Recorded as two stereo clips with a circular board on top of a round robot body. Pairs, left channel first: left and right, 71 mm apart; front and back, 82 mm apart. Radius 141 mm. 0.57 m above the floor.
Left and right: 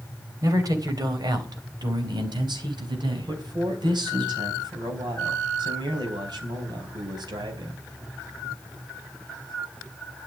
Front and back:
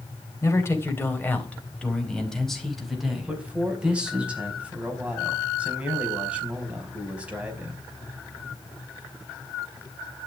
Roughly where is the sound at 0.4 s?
Ahead right.